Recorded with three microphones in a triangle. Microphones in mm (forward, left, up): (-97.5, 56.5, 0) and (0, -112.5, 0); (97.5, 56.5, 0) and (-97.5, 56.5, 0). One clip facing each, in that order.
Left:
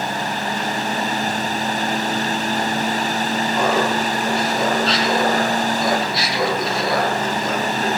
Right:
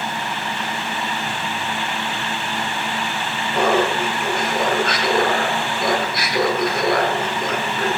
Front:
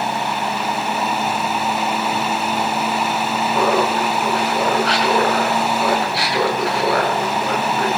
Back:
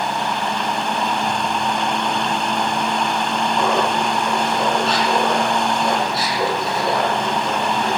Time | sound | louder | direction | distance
3.5 | laughter | right 3 dB, front 3 dB | 25° right | 5 m